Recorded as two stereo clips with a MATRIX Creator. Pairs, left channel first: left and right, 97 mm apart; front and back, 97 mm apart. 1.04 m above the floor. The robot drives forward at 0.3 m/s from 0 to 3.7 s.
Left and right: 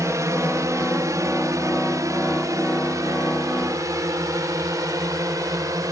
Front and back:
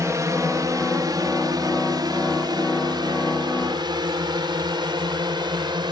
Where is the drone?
135° right; by 5.9 s 140° right.